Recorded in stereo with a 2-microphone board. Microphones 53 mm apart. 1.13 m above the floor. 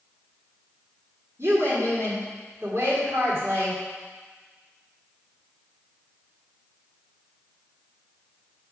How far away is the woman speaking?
About 3 m.